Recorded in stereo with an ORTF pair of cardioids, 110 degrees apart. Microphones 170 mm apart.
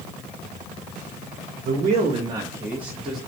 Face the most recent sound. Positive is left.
turn(degrees=0)